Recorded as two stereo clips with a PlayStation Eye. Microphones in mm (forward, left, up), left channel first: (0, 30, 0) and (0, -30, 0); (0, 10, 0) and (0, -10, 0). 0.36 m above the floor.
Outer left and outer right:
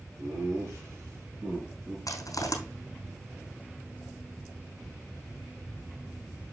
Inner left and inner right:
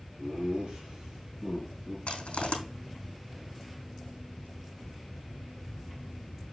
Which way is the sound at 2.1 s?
70° left (ahead or behind).